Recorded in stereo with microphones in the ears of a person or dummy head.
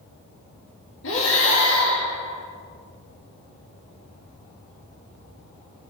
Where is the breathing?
70° left (ahead or behind), 2.5 m.